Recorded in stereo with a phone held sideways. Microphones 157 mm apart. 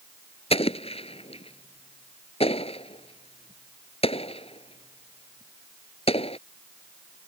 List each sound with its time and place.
0.5 s an explosion: 40° left (ahead or behind)